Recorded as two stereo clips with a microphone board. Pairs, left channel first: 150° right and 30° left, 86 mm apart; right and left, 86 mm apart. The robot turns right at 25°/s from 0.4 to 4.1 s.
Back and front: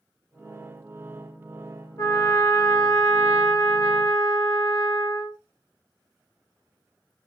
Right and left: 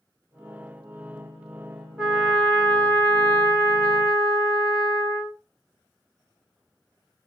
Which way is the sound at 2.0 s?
175° left.